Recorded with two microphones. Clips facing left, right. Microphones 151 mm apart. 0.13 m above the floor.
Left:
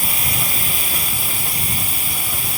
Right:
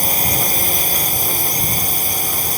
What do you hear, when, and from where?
0.0 s a drone: 40° right (ahead or behind)